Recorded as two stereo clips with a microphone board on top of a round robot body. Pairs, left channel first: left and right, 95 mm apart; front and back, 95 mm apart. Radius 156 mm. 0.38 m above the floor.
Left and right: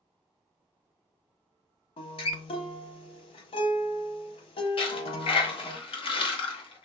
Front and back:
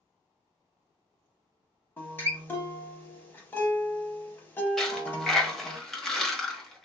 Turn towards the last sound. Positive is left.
turn(degrees=85)